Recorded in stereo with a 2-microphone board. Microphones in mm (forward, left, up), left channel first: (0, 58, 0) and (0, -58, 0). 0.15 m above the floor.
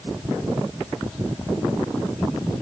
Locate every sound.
Only background noise.